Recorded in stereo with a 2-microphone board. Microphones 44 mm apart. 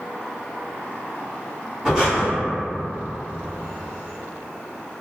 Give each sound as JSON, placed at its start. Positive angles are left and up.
{"t": 1.9, "sound": "breathing", "side_deg": -15, "distance_m": 1.1}